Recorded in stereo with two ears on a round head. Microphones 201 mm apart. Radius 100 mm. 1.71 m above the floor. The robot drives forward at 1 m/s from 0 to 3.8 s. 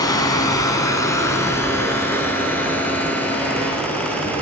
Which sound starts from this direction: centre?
Running water, at 0.0 s.